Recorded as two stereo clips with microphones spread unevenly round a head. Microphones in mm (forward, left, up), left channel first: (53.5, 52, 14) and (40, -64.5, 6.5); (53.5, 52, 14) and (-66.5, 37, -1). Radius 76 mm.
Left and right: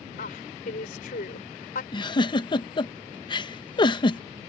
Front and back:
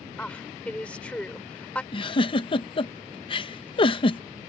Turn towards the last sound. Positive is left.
turn(degrees=45)